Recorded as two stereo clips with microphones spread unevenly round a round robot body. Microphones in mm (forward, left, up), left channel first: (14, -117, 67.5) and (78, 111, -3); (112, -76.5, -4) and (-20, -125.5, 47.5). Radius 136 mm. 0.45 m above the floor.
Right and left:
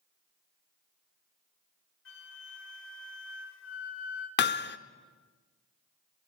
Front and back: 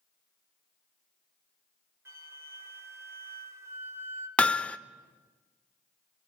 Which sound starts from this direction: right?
A flute, at 2.0 s.